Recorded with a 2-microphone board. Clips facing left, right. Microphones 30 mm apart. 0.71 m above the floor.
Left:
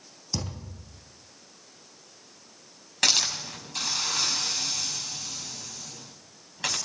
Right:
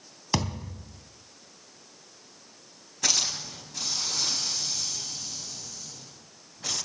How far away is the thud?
About 2.5 m.